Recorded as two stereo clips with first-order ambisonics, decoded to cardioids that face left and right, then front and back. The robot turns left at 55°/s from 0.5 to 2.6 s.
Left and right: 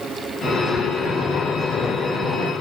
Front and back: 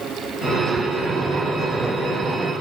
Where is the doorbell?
I don't hear a doorbell.